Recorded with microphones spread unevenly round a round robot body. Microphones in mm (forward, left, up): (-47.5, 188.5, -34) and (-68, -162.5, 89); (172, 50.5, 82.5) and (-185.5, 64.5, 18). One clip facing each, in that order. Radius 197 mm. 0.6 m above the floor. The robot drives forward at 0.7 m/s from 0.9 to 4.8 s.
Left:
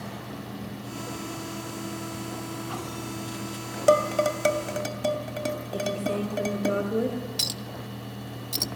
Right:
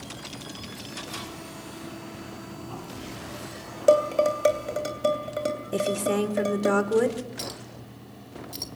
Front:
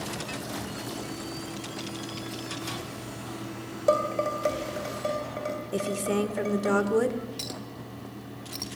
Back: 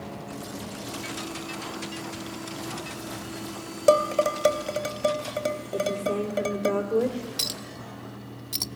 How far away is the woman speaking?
About 2.5 m.